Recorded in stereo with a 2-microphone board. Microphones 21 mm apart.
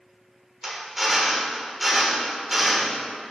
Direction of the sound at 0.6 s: 10° right (ahead or behind).